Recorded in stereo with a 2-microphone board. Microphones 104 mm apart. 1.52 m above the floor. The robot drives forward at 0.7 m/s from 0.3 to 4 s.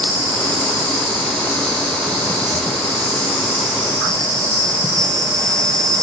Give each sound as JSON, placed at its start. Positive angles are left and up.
{"t": 0.0, "sound": "an insect", "side_deg": -35, "distance_m": 2.0}